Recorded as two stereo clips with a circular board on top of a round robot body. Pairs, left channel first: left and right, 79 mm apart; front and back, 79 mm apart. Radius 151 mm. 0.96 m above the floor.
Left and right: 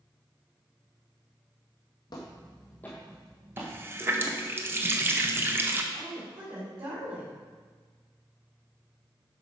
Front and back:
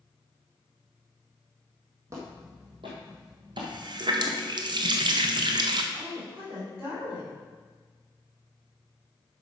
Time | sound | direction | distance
2.1 | footsteps | 125° left | 1.5 m
3.6 | a running tap | 155° right | 0.8 m
5.9 | a woman speaking | 130° right | 4 m